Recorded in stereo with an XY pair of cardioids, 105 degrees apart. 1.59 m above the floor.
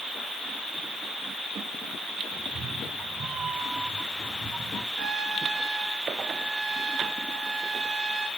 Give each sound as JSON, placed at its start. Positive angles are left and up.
{"t": 2.3, "sound": "a cat meowing", "azimuth_deg": -60, "distance_m": 5.0}
{"t": 5.0, "sound": "a trumpet", "azimuth_deg": -55, "distance_m": 5.5}